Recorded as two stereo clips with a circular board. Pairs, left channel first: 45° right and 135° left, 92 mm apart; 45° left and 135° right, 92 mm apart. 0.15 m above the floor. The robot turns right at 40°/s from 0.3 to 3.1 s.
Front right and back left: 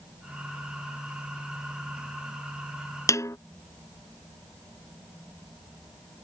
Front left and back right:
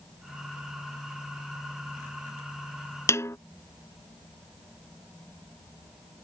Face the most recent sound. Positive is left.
turn(degrees=-5)